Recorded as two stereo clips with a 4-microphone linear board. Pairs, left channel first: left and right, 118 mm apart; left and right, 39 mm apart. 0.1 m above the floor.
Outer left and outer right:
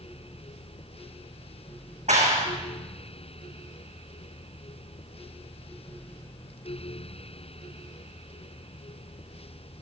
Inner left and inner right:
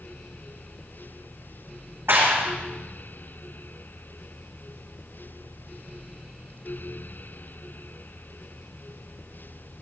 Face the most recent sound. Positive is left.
turn(degrees=-75)  # may be behind; listen again after turning